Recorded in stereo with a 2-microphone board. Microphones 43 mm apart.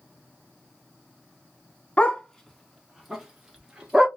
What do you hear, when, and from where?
2.0 s a dog barking: 25° left (ahead or behind), 0.6 m; by 4.1 s 20° right (ahead or behind), 1.5 m